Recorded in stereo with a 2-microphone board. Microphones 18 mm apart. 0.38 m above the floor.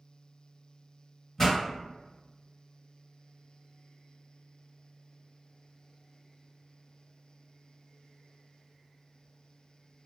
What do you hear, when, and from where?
1.4 s a pop: 20° left (ahead or behind), 1.6 m